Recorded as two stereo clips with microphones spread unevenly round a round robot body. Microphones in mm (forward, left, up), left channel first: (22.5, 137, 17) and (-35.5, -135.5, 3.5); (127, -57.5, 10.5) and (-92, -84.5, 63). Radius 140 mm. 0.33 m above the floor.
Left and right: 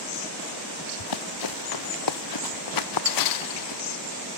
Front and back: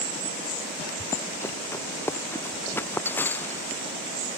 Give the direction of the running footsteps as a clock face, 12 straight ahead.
9 o'clock.